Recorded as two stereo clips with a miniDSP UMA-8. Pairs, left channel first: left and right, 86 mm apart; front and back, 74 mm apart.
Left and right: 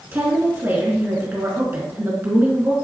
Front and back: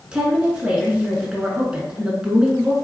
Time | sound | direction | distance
0.1 | a woman speaking | 120° right | 1.5 m